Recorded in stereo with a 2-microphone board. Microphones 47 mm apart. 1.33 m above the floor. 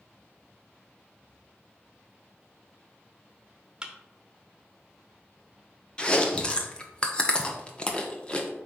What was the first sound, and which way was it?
A thud, 15° right (ahead or behind).